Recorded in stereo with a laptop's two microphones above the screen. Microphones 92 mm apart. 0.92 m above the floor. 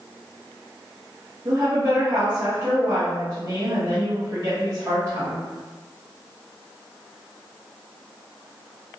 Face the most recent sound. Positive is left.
turn(degrees=-35)  # may be behind; listen again after turning